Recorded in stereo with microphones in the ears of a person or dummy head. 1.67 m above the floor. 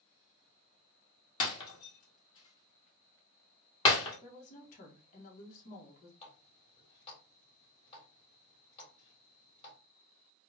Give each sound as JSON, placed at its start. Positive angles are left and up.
{"t": 1.4, "sound": "breaking glass", "side_deg": 25, "distance_m": 2.0}
{"t": 4.2, "sound": "a woman speaking", "side_deg": 45, "distance_m": 1.6}
{"t": 6.2, "sound": "a running tap", "side_deg": 30, "distance_m": 3.0}